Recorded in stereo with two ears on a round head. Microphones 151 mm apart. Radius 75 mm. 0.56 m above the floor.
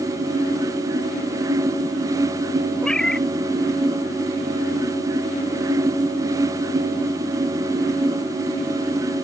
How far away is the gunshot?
No gunshot in this recording.